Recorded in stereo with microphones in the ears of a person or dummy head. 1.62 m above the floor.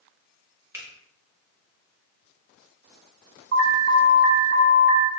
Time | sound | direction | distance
0.7 | a finger snap | 10° right (ahead or behind) | 0.6 m
3.5 | an alarm | 60° right (ahead or behind) | 0.6 m